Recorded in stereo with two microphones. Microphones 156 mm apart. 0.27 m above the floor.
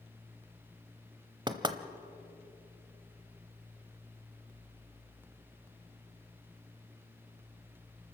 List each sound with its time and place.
1.5 s knocking: 30° right (ahead or behind), 0.9 m